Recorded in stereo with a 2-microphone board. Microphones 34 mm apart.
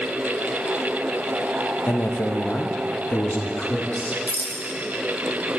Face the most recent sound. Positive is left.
turn(degrees=75)  # may be behind; listen again after turning